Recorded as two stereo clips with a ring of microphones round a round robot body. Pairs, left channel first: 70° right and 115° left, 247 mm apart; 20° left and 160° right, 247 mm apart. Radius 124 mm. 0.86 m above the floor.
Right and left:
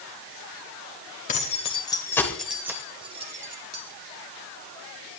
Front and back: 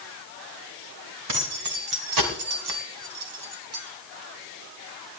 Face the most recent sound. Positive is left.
turn(degrees=165)